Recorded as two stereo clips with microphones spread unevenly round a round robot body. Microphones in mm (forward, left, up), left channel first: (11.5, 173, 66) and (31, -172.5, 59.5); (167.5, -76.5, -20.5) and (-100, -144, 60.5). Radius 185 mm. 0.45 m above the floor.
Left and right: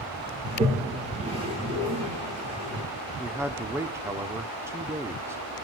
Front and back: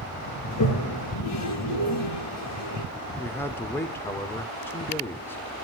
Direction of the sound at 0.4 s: 10° right.